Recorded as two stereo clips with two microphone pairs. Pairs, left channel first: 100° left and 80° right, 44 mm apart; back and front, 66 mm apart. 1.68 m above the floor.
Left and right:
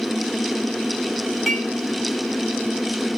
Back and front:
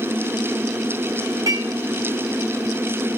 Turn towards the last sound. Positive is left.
turn(degrees=10)